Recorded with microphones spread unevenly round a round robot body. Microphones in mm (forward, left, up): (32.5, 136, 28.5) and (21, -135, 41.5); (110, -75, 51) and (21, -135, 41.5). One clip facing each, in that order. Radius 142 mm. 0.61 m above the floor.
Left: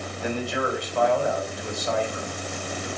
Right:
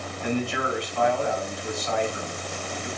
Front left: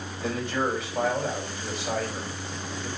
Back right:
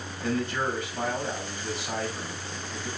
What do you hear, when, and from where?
0.2 s a man speaking: 40° left, 4.5 m